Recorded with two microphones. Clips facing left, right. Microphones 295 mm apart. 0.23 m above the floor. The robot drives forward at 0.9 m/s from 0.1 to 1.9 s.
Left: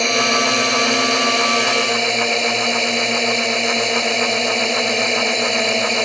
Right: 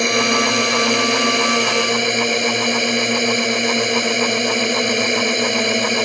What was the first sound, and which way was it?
A drone, 20° right (ahead or behind).